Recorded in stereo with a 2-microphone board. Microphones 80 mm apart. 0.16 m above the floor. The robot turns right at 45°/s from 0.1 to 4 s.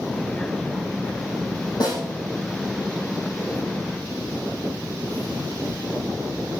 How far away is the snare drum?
About 8.5 m.